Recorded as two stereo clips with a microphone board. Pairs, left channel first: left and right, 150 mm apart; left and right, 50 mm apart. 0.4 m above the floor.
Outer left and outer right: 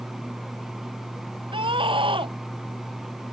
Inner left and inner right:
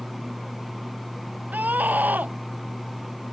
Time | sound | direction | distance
1.5 | a scream | 35° right (ahead or behind) | ?